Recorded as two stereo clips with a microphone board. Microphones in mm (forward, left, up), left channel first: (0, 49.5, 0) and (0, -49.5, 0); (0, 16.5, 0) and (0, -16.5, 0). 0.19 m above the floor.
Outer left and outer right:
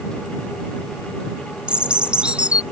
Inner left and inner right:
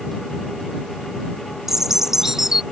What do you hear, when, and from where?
1.7 s a bird: 10° right (ahead or behind)